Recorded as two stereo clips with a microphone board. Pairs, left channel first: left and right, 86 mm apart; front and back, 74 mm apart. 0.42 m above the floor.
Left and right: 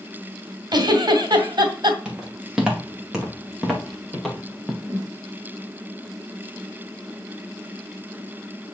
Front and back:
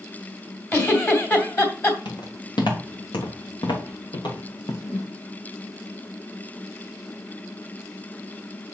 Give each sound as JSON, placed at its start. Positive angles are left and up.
{"t": 0.7, "sound": "a giggle", "azimuth_deg": -55, "distance_m": 2.5}
{"t": 2.0, "sound": "footsteps", "azimuth_deg": -10, "distance_m": 4.5}
{"t": 4.8, "sound": "a whoosh", "azimuth_deg": -10, "distance_m": 5.5}